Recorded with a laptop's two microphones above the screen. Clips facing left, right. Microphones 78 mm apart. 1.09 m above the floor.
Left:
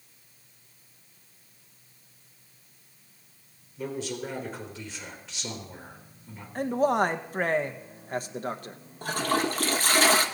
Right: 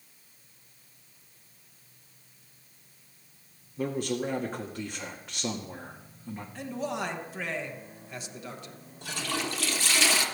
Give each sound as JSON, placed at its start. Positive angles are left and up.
{"t": 3.8, "sound": "a man speaking", "side_deg": -50, "distance_m": 1.7}
{"t": 6.5, "sound": "a man speaking", "side_deg": 45, "distance_m": 0.7}
{"t": 9.0, "sound": "a toilet flushing", "side_deg": 40, "distance_m": 0.9}